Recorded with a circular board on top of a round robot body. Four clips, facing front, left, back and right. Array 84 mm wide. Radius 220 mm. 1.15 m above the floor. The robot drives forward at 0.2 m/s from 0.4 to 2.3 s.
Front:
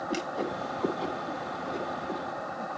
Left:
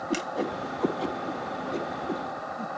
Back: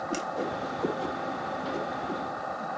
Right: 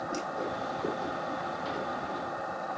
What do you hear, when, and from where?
0.1 s a whoosh: 80° left, 1.9 m; by 2.7 s 90° left, 1.9 m